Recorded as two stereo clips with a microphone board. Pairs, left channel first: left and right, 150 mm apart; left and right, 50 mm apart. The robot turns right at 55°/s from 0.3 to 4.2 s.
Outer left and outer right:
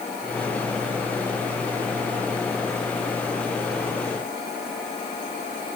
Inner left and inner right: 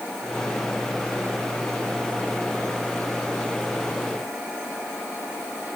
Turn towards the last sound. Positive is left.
No sound to turn to.